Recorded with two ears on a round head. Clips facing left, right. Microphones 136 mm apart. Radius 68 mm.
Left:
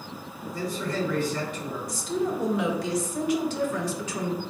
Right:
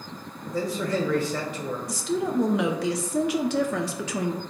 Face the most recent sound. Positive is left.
turn(degrees=-55)  # may be behind; listen again after turning